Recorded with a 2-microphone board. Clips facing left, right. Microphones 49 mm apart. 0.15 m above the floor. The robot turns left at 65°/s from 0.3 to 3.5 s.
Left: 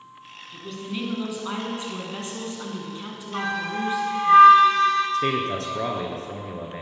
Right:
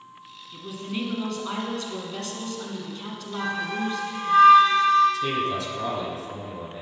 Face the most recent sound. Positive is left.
turn(degrees=50)  # may be behind; listen again after turning